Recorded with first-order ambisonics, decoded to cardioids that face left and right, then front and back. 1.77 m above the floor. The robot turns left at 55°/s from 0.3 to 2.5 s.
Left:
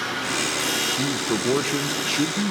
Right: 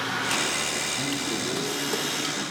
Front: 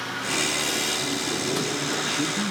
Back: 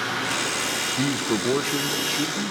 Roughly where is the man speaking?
Behind left.